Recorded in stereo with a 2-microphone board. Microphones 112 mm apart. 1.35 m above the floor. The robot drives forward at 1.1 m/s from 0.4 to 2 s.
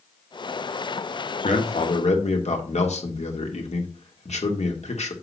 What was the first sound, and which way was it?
A man speaking, 85° left.